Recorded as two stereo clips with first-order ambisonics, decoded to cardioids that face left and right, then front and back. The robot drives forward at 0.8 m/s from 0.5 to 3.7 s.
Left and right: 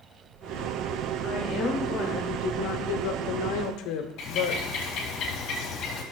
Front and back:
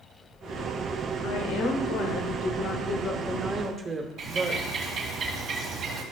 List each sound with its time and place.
1.2 s a woman speaking: 25° left, 1.9 m; by 4.6 s 110° left, 0.9 m
4.2 s a bird: 130° left, 1.7 m